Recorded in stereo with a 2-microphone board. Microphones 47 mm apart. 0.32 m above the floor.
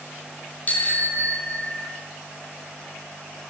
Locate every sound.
0.7 s a bicycle bell: 35° left (ahead or behind), 7 m; by 1.9 s 40° left (ahead or behind), 6.5 m